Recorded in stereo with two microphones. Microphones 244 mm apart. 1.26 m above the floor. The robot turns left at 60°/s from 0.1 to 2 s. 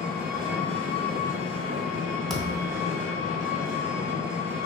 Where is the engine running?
10° left, 1.2 m; by 4.7 s 105° right, 1.2 m.